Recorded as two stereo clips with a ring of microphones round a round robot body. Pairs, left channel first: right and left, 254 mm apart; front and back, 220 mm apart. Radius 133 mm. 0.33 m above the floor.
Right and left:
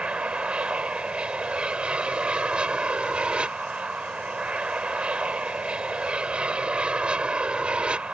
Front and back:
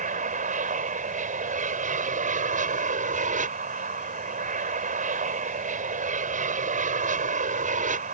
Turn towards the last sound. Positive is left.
turn(degrees=175)